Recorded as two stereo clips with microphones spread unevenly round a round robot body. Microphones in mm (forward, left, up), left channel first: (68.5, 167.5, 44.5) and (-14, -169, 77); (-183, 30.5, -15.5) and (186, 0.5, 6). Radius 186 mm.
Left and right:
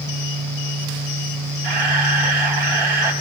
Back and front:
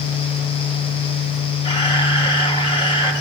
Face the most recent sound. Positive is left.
turn(degrees=-105)